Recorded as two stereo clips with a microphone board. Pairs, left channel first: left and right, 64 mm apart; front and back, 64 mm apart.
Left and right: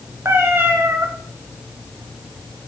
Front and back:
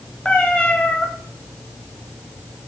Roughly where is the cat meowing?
Ahead right.